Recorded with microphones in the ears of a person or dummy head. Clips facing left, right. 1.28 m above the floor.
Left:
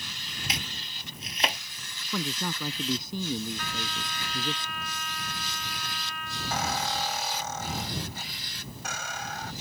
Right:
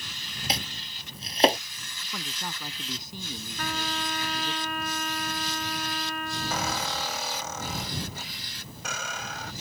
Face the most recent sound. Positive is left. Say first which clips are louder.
# left 3 dB
turn(degrees=-65)  # may be behind; listen again after turning